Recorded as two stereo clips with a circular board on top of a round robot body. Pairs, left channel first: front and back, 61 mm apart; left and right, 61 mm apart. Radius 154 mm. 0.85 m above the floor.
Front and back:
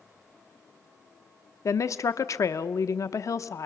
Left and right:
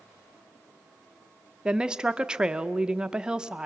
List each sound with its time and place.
1.6 s a woman speaking: 15° right, 0.8 m